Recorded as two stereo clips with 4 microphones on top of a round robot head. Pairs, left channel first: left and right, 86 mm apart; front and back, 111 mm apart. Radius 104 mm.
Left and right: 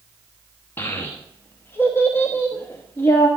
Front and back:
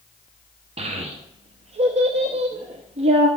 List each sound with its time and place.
0.8 s a child speaking: 155° left, 0.9 m